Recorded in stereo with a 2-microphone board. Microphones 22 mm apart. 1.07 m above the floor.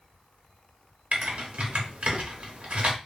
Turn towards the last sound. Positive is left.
turn(degrees=-60)  # may be behind; listen again after turning